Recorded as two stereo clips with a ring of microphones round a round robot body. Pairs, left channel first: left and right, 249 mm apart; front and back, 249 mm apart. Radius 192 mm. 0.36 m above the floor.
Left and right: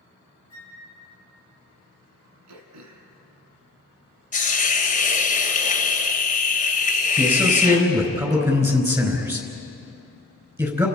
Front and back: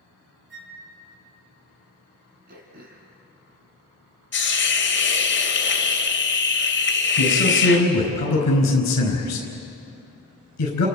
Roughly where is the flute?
Behind left.